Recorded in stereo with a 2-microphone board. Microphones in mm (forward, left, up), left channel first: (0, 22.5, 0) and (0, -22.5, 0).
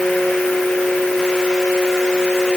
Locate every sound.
Only background noise.